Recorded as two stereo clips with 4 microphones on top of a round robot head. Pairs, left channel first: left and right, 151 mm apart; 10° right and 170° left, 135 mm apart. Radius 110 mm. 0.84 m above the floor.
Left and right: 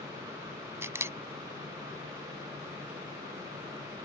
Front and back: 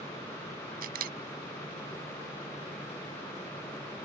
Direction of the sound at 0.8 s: 165° right.